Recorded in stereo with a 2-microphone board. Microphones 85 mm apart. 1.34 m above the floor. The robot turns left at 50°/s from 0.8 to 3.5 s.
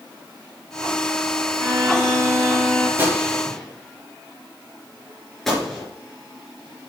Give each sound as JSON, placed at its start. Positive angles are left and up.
{"t": 1.6, "sound": "a violin", "azimuth_deg": -110, "distance_m": 5.5}
{"t": 3.0, "sound": "a gunshot", "side_deg": -20, "distance_m": 3.5}